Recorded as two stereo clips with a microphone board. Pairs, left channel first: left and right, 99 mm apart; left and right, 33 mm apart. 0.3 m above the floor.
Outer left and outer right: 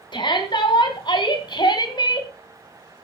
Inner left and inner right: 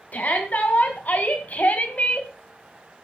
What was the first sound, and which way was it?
A shout, 55° left (ahead or behind).